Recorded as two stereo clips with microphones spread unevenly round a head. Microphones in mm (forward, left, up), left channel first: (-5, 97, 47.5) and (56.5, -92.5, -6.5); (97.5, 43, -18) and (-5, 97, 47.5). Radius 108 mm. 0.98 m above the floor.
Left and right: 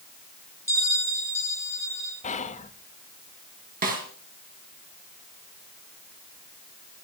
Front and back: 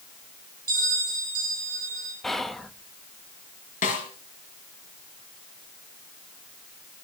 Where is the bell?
170° right, 7 m.